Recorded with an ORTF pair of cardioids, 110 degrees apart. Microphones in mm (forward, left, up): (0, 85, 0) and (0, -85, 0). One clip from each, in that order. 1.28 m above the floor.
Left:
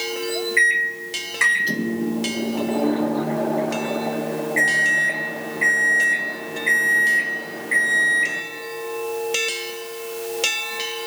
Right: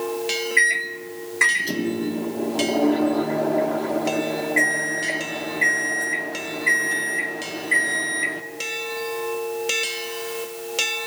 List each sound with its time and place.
0.6 s a microwave: straight ahead, 0.9 m